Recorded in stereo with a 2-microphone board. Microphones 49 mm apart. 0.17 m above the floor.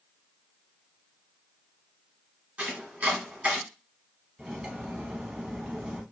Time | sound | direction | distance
2.6 | chopping | 25° right (ahead or behind) | 1.2 m
4.4 | cutlery clinking | 15° right (ahead or behind) | 0.6 m